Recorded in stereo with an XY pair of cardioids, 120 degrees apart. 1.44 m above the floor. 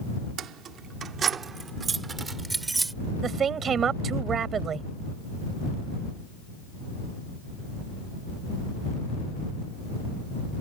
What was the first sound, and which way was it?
Keys jangling, 65° right.